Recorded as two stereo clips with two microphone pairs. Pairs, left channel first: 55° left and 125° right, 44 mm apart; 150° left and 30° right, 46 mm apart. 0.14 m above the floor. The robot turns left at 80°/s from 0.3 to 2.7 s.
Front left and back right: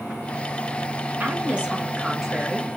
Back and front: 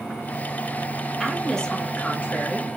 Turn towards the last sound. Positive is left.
turn(degrees=110)